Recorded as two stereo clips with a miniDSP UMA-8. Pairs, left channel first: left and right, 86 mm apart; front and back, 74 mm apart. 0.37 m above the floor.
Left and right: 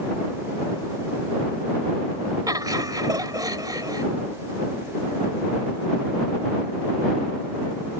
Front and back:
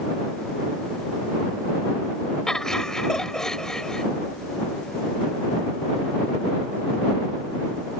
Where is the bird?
No bird in this recording.